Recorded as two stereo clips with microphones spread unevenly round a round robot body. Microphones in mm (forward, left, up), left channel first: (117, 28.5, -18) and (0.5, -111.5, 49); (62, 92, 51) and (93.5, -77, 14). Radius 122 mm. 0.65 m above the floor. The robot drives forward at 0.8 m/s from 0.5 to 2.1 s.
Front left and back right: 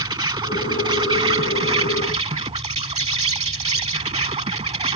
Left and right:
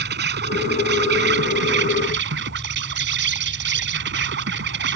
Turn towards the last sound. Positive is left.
turn(degrees=-70)